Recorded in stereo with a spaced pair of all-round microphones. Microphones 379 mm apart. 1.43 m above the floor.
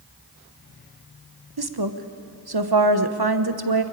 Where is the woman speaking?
75° right (ahead or behind), 1.1 m.